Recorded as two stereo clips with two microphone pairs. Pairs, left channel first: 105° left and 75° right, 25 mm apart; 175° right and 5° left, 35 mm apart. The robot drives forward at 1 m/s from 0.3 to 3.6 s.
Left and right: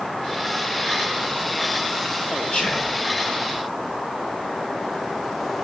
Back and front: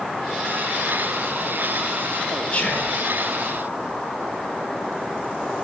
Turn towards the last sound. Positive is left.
turn(degrees=140)